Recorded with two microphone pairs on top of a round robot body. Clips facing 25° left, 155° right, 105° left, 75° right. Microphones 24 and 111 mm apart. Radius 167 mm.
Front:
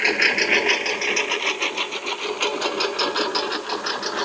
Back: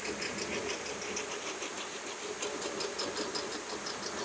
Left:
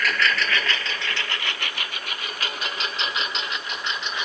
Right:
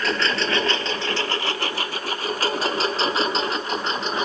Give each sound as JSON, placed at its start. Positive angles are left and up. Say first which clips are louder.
{"t": 0.0, "sound": "a lawn mower", "louder": "front 18 dB, right 1 dB", "azimuth_deg": -10}